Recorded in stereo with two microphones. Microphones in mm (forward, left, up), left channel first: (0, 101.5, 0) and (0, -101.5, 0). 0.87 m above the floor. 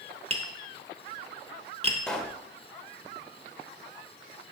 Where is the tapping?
30° right (ahead or behind), 0.8 m.